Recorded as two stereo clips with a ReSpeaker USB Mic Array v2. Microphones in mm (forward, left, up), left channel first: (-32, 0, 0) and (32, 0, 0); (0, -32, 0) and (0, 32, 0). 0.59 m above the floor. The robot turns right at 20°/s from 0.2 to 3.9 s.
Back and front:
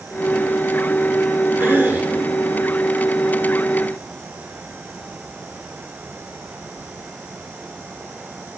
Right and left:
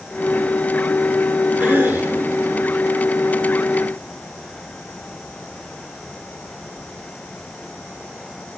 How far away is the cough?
About 2 m.